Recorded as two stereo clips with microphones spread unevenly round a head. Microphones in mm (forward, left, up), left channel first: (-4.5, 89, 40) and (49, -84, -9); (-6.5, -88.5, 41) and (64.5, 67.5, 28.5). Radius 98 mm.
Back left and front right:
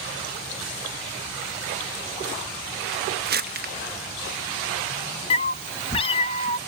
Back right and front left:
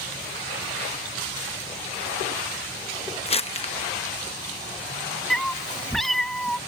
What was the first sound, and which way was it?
Crumpling, 60° right.